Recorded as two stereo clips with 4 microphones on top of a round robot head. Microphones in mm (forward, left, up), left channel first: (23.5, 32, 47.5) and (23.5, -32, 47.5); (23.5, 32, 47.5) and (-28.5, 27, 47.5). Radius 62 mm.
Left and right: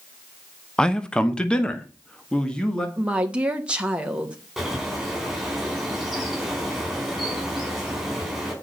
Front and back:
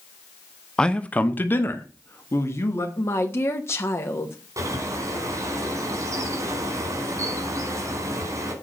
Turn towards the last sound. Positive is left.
turn(degrees=180)